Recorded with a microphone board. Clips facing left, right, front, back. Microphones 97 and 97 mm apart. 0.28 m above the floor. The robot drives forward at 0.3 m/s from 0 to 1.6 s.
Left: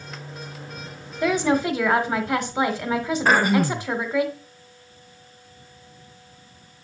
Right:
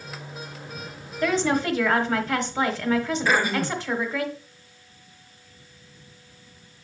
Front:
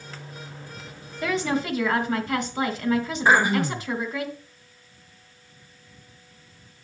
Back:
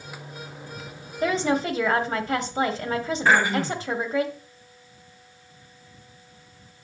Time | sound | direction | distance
1.2 | a woman speaking | 160° left | 1.2 m
3.2 | throat clearing | 75° left | 0.7 m